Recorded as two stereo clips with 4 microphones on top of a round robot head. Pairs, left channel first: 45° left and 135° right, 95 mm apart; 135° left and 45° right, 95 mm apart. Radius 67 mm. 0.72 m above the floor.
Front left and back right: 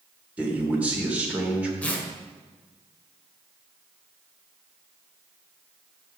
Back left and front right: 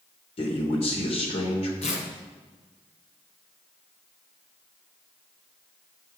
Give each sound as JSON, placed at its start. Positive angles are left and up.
{"t": 0.4, "sound": "a man speaking", "azimuth_deg": 150, "distance_m": 2.5}
{"t": 1.8, "sound": "tearing paper", "azimuth_deg": 120, "distance_m": 1.7}